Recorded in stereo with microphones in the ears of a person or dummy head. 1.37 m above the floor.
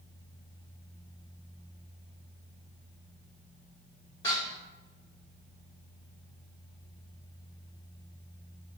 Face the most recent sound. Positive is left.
turn(degrees=25)  # may be behind; listen again after turning